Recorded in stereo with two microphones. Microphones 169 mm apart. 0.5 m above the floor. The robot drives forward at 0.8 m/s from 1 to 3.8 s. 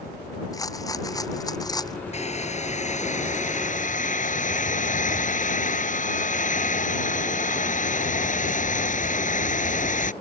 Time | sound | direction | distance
0.5 | a rattle | 20° left (ahead or behind) | ?
2.1 | a hair dryer | 40° left (ahead or behind) | ?